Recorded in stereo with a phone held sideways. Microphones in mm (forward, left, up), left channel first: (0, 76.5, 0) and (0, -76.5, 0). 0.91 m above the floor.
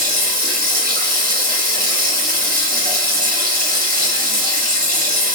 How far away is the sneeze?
No sneeze in this recording.